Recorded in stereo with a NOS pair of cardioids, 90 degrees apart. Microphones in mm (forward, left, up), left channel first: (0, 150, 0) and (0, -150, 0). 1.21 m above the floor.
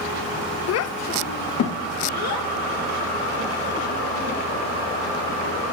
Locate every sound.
0.7 s a child speaking: 55° left, 0.6 m; by 5.6 s 70° left, 3.5 m